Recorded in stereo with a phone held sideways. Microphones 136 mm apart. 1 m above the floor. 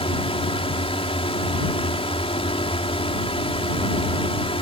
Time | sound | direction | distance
0.0 | a drone | 45° left (ahead or behind) | ?